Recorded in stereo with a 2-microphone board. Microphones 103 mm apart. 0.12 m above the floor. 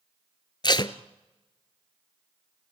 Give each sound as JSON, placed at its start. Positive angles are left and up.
{"t": 0.6, "sound": "tape being pulled", "side_deg": 45, "distance_m": 0.7}